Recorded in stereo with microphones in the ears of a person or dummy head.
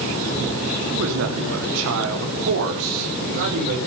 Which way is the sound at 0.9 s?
75° right (ahead or behind).